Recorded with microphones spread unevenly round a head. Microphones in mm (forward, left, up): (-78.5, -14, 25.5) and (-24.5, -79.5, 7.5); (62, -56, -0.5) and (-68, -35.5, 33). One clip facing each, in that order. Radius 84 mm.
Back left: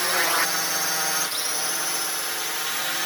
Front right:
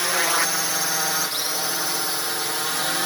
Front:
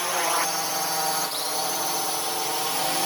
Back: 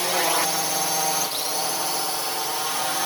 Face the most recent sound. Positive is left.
turn(degrees=-55)